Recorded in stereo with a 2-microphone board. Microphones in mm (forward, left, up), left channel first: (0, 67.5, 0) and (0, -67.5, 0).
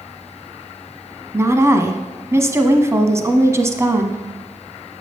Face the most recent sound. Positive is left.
turn(degrees=-20)  # may be behind; listen again after turning